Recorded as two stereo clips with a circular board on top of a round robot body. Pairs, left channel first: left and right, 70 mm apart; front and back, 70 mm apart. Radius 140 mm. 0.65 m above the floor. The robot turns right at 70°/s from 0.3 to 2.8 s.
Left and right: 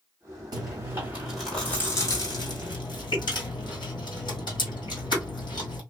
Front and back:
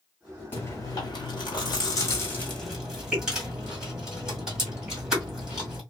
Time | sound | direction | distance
0.5 | chewing | 60° right | 1.8 m